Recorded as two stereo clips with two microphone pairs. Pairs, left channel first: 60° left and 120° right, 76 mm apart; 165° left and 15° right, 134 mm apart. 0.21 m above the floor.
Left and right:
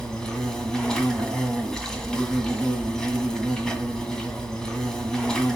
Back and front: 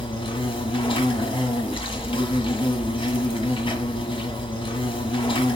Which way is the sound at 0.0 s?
135° left.